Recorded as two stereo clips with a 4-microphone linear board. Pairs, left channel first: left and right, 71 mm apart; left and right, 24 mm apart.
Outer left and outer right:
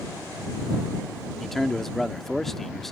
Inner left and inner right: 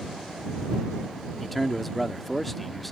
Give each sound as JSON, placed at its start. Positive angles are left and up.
{"t": 1.4, "sound": "a man speaking", "side_deg": 5}